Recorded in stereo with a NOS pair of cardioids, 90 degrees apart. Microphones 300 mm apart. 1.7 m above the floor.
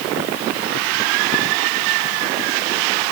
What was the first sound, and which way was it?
Only background noise.